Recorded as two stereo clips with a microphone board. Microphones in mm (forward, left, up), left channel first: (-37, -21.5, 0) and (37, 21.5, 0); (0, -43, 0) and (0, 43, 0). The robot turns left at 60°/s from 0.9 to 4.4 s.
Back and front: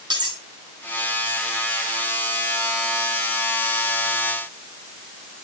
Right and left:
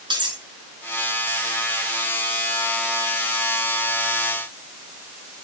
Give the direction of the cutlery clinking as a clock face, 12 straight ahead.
10 o'clock.